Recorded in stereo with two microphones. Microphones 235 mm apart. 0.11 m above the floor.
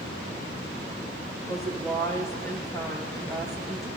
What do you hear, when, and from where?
1.5 s a woman speaking: 15° left (ahead or behind), 4.5 m